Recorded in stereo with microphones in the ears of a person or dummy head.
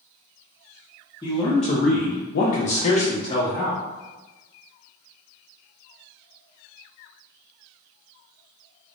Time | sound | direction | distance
1.2 | a man speaking | 15° left (ahead or behind) | 1.0 m